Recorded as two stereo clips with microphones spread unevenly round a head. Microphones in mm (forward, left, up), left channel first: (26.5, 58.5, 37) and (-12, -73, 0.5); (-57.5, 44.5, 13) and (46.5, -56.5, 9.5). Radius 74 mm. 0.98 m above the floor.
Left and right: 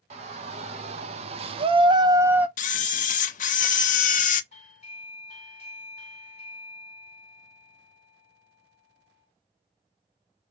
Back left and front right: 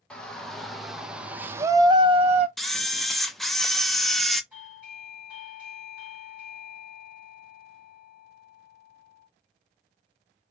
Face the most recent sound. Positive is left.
turn(degrees=35)